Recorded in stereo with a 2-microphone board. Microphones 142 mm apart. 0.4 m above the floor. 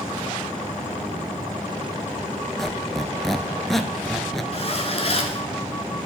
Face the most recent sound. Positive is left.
turn(degrees=45)  # may be behind; listen again after turning